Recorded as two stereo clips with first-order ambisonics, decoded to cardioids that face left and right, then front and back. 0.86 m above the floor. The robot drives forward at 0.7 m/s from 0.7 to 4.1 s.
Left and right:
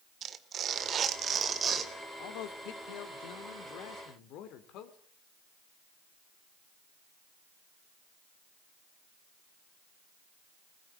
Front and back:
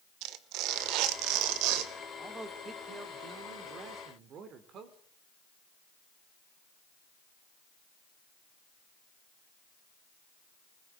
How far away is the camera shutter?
I don't hear a camera shutter.